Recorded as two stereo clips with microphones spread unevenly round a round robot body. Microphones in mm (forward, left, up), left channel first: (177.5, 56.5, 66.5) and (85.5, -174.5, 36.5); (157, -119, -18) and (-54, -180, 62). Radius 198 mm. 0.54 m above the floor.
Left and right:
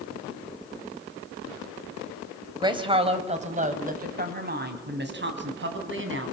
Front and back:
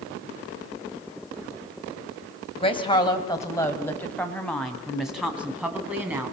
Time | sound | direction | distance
2.6 | a woman speaking | 40° right | 3.5 m